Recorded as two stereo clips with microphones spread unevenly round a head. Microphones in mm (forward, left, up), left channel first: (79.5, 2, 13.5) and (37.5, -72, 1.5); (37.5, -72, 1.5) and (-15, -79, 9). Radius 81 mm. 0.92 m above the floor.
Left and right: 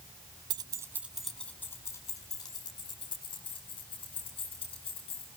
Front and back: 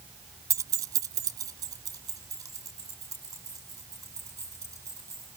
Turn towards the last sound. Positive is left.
turn(degrees=120)